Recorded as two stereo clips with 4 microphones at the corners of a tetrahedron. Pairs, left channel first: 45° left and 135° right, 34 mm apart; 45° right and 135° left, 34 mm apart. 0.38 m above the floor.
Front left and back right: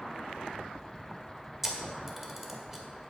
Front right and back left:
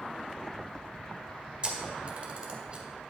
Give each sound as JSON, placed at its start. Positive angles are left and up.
{"t": 1.6, "sound": "a camera shutter", "azimuth_deg": 150, "distance_m": 1.6}